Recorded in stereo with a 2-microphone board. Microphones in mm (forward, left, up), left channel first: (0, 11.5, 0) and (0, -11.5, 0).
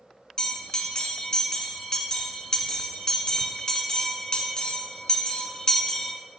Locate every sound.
0.4 s a bell: 35° left (ahead or behind), 1.2 m